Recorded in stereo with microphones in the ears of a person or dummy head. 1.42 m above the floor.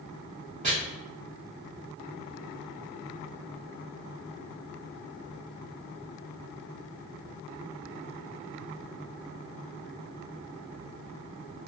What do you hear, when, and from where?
0.6 s chopping: 20° right (ahead or behind), 0.7 m